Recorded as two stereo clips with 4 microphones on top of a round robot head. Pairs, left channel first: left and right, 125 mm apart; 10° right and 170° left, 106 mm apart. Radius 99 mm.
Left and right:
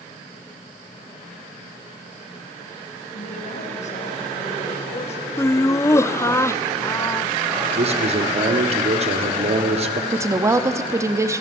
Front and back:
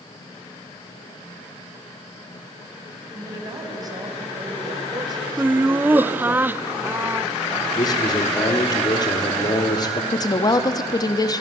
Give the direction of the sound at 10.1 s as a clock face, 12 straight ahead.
1 o'clock.